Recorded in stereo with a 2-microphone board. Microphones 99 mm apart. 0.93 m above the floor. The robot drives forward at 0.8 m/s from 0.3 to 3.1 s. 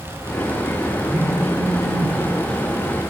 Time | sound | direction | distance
1.1 | a phone buzzing | 15° left (ahead or behind) | 4 m